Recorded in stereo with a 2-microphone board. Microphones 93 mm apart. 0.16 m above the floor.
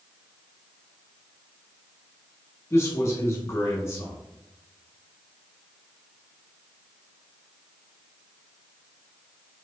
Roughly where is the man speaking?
Left.